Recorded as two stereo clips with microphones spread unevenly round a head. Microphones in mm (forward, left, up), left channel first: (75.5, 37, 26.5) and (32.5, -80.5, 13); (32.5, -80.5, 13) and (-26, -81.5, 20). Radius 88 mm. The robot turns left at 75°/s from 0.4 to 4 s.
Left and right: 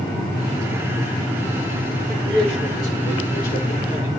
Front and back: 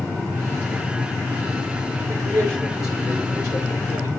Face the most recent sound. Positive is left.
turn(degrees=35)